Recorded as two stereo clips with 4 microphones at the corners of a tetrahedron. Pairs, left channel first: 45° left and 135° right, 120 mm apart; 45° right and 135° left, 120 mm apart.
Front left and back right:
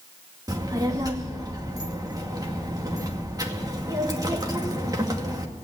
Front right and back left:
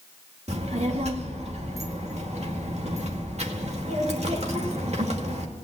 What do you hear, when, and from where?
0.5 s a child speaking: 165° left, 2 m